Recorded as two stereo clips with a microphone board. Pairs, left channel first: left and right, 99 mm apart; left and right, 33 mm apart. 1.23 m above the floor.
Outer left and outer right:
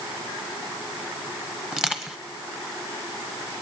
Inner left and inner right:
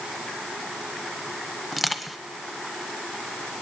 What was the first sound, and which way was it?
Crushing, 10° right (ahead or behind).